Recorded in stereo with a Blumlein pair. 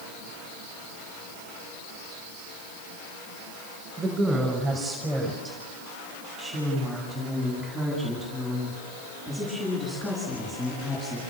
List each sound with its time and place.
4.0 s a woman speaking: 15° right, 6 m; by 11.2 s 15° left, 15 m